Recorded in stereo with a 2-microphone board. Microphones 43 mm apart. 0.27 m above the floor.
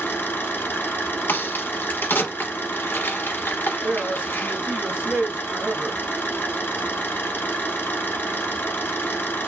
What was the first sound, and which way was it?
An engine running, 60° left (ahead or behind).